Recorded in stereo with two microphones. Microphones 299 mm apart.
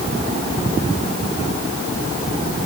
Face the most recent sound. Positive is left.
No sound to turn to.